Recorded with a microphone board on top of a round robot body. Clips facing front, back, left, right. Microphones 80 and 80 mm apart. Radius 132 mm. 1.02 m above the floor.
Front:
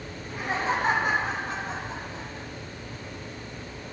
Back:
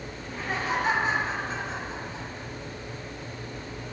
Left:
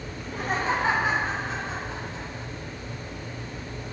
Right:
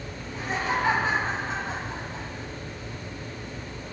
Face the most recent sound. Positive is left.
turn(degrees=-20)